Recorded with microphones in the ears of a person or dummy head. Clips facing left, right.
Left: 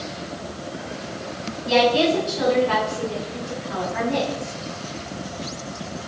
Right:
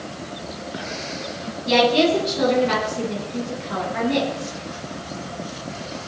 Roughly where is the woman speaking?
Right.